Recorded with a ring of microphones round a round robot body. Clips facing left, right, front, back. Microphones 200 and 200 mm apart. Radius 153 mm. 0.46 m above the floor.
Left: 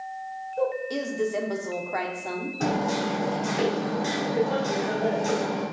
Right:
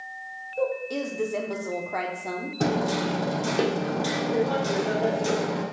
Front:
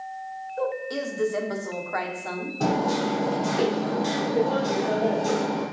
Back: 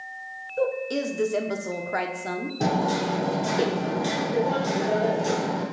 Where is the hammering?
105° right, 1.4 m.